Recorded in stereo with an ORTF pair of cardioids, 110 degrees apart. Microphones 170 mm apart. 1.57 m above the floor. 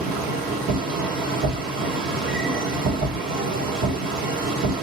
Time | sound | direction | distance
0.0 | a machine running | 65° right | 1.6 m